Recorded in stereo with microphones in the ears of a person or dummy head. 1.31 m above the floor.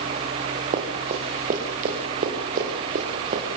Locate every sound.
0.7 s running footsteps: 40° right (ahead or behind), 5 m; by 3.4 s 50° right (ahead or behind), 6.5 m